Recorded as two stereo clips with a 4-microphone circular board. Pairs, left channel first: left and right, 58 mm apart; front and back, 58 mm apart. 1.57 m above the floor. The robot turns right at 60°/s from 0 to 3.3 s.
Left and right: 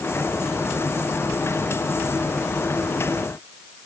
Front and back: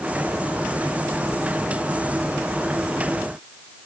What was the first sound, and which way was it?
Only background noise.